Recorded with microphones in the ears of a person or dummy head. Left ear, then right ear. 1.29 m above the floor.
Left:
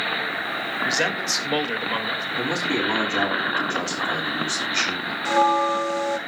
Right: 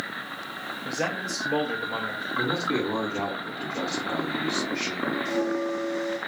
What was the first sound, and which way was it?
A man speaking, 35° left (ahead or behind).